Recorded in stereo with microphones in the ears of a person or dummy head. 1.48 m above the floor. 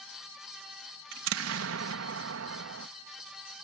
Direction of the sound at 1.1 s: 80° right.